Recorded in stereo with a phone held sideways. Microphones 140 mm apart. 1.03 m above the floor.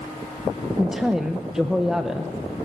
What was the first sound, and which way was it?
A woman speaking, 5° right (ahead or behind).